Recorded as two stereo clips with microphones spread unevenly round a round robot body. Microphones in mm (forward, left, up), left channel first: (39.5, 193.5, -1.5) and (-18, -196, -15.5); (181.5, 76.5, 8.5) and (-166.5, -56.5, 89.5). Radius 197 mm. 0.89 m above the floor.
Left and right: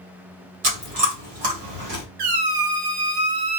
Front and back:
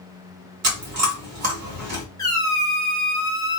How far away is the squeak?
About 0.7 m.